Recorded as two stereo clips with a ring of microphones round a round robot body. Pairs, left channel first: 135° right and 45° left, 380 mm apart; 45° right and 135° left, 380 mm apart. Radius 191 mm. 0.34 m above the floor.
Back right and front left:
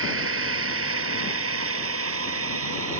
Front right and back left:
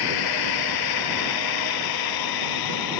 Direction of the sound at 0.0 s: 15° right.